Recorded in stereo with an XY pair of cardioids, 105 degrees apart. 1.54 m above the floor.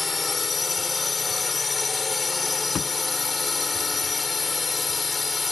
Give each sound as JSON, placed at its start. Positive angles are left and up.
{"t": 0.0, "sound": "a drone", "azimuth_deg": 30}
{"t": 2.8, "sound": "a thud", "azimuth_deg": 55}